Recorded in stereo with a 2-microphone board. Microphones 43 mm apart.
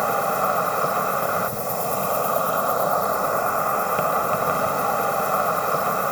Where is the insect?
Centre (ahead or behind).